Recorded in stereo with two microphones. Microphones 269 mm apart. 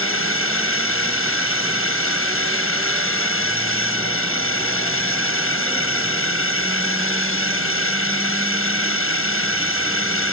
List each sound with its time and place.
0.0 s a drone: 50° left (ahead or behind)